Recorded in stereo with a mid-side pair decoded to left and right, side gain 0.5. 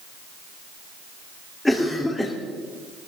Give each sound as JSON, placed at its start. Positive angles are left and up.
{"t": 1.6, "sound": "a cough", "azimuth_deg": 15, "distance_m": 3.5}